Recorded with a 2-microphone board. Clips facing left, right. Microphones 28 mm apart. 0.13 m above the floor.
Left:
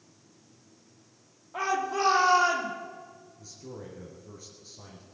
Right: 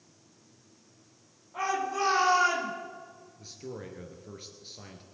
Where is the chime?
No chime in this recording.